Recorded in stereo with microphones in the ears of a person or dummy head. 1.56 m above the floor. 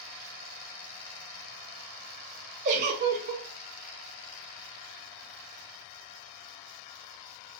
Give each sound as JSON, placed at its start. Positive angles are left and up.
{"t": 2.6, "sound": "a giggle", "side_deg": -50, "distance_m": 0.7}